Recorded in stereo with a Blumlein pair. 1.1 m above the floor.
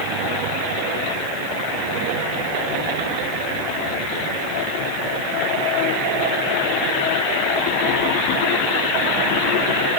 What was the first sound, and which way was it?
Only background noise.